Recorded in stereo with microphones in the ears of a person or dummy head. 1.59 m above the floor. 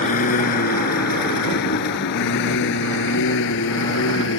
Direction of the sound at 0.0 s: 40° left (ahead or behind).